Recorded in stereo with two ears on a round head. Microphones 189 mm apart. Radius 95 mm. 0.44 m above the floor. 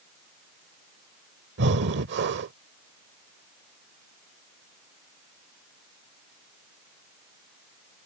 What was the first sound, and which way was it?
Breathing, 55° right (ahead or behind).